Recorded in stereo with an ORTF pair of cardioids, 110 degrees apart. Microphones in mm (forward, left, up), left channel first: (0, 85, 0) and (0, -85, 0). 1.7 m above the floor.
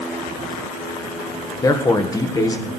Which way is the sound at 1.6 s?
20° left.